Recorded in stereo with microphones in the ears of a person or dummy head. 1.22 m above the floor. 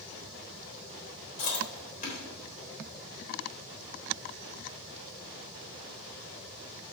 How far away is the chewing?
About 3.5 m.